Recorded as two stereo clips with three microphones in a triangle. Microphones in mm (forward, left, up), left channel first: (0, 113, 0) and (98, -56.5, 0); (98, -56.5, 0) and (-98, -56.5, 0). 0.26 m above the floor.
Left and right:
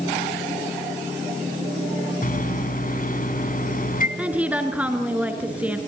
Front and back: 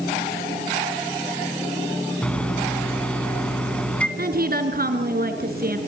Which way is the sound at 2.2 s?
85° left.